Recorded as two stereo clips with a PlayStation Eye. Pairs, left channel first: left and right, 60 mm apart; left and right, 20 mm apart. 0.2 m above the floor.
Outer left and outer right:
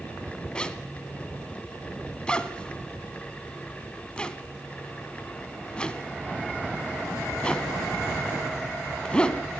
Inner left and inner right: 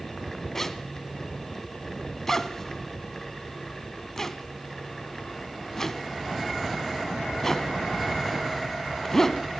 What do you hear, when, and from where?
0.6 s a zipper: 15° left (ahead or behind), 1.1 m